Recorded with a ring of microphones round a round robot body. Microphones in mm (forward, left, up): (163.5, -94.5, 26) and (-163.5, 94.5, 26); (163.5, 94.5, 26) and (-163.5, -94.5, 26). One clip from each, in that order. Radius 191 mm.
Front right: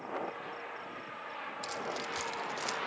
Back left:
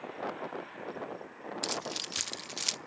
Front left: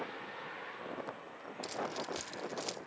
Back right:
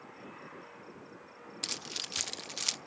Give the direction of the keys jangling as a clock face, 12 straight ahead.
6 o'clock.